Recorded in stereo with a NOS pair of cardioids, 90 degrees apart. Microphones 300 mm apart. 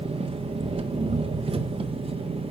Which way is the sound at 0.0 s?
20° right.